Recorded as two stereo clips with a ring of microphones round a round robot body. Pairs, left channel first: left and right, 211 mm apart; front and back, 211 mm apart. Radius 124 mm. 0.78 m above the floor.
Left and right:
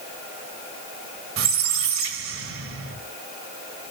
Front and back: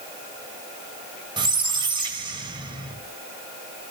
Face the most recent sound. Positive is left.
turn(degrees=-110)